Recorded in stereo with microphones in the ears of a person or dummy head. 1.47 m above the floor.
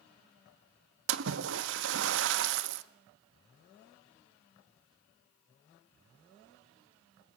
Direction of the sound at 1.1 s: 70° right (ahead or behind).